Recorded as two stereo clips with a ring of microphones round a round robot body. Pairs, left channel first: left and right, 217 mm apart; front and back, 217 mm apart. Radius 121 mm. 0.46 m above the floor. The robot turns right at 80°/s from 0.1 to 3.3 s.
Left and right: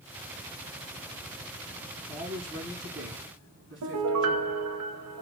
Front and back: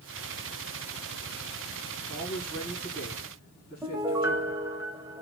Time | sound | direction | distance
2.1 | a man speaking | 150° left | 4 m
3.8 | a piano | 100° right | 0.7 m